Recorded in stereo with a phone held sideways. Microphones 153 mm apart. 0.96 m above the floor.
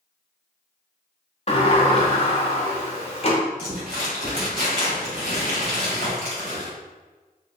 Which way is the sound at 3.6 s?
75° right (ahead or behind).